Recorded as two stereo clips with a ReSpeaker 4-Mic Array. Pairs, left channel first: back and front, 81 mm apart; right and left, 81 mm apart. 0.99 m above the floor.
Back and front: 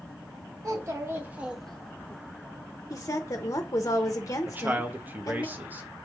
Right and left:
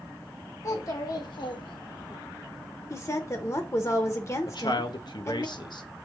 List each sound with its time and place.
0.6 s a child speaking: 45° right, 1.4 m; by 2.2 s 130° right, 1.0 m
2.9 s a woman speaking: 135° right, 0.7 m
4.5 s a man speaking: 65° right, 0.7 m